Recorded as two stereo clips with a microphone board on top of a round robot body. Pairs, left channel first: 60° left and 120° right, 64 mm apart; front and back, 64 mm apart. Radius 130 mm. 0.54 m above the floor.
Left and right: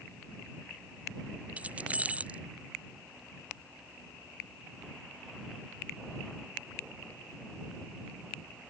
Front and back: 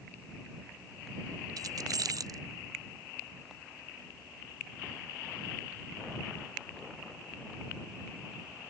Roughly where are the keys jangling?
Behind.